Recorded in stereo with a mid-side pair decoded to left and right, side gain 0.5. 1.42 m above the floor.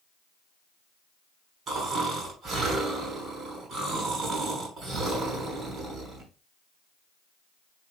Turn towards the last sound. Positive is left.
turn(degrees=-50)